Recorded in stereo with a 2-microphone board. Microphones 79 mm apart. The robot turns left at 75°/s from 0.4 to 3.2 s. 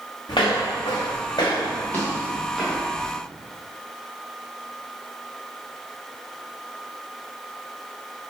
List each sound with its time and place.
0.3 s footsteps: 80° left, 1.0 m; by 3.1 s 40° right (ahead or behind), 1.7 m